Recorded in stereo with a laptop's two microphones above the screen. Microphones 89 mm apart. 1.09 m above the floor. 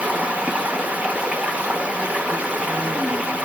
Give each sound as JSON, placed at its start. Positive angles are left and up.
{"t": 0.0, "sound": "running water", "side_deg": -15, "distance_m": 0.8}